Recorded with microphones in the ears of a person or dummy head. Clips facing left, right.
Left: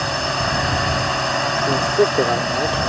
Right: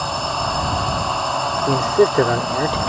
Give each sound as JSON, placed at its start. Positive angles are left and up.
{"t": 0.0, "sound": "a drone", "side_deg": 30}
{"t": 1.7, "sound": "a man speaking", "side_deg": -15}